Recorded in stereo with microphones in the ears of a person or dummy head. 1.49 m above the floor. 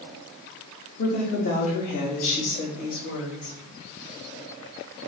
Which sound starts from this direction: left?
A woman speaking, at 1.0 s.